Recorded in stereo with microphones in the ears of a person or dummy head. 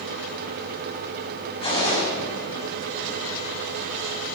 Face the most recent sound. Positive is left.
turn(degrees=30)  # may be behind; listen again after turning